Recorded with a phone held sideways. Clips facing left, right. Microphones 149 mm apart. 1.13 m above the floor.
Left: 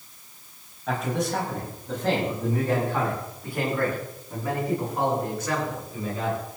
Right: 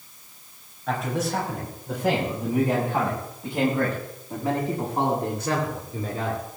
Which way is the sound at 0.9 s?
Centre (ahead or behind).